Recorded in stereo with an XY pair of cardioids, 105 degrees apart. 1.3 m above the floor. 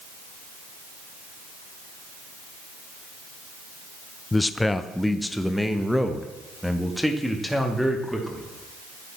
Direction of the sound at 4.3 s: 15° left.